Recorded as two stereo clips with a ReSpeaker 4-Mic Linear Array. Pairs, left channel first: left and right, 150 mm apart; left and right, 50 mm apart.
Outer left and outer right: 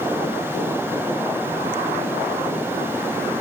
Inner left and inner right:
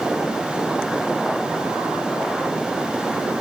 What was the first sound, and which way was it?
Only background noise.